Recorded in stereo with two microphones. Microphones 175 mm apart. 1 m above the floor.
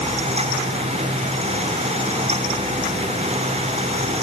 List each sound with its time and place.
Only background noise.